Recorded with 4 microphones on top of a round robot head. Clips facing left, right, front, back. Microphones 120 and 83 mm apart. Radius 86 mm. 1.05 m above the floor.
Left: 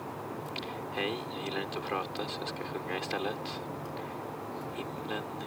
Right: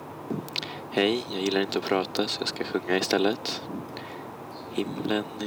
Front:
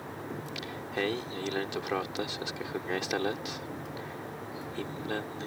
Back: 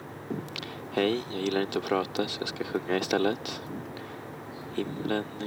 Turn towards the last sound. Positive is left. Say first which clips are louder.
# right 4 dB, back 6 dB
turn(degrees=-120)